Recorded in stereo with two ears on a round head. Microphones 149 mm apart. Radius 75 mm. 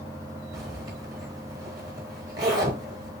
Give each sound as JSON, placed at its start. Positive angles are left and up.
{"t": 0.5, "sound": "a zipper", "side_deg": -25, "distance_m": 1.0}